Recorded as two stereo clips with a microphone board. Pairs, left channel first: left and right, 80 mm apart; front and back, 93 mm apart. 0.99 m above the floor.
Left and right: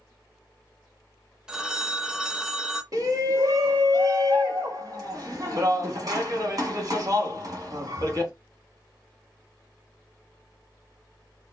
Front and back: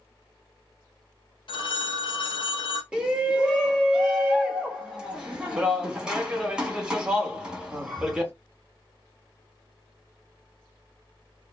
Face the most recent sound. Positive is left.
turn(degrees=-100)